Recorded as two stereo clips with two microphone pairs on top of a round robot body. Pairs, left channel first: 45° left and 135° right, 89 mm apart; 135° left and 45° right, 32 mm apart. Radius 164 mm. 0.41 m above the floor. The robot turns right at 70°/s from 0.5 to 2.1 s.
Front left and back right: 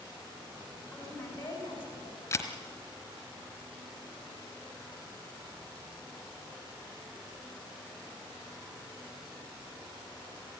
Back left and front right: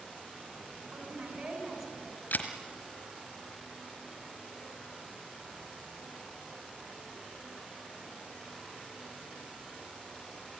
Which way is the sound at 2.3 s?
105° left.